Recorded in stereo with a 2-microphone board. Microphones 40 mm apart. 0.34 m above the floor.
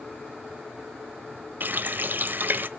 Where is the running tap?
50° right (ahead or behind), 0.8 m.